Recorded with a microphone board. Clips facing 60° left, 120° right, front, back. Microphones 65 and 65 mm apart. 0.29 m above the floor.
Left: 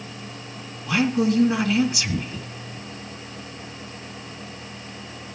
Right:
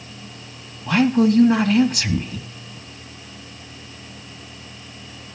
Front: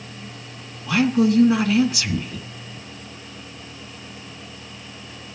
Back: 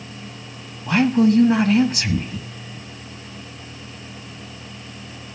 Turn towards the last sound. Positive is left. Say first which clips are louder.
# right 5 dB, back 2 dB
turn(degrees=-140)